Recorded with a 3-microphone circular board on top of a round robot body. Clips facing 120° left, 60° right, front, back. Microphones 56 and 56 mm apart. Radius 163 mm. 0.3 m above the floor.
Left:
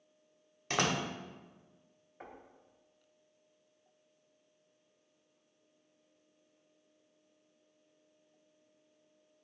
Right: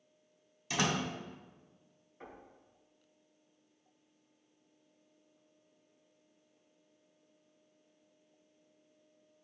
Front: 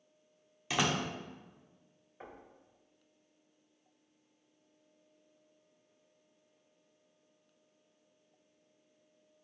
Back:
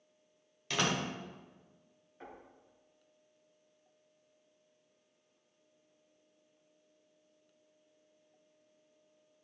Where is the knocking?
75° left, 2 m.